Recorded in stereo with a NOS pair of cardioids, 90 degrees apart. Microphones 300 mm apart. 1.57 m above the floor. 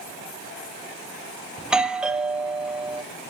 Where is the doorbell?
Straight ahead, 0.5 m.